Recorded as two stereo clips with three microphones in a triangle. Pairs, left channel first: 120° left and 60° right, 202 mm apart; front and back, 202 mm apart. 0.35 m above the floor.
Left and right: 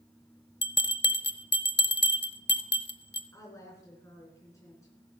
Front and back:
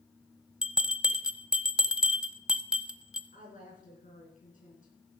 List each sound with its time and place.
0.6 s a bell: 95° left, 0.6 m
3.3 s a woman speaking: 45° left, 4 m